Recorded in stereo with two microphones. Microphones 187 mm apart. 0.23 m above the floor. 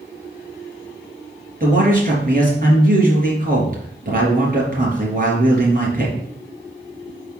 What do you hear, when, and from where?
1.6 s a man speaking: 45° right (ahead or behind), 4 m